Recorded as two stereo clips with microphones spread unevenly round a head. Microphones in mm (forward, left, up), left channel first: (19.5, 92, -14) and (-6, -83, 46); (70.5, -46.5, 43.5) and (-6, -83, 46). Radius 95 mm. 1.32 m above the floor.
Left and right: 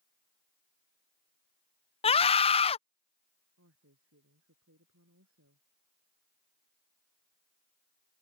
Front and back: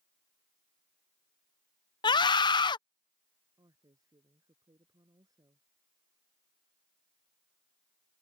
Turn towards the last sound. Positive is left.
turn(degrees=-110)